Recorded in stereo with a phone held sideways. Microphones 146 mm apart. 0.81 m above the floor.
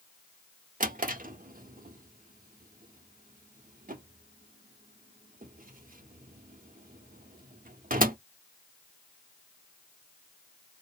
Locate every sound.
0.8 s a drawer: 70° right (ahead or behind), 0.6 m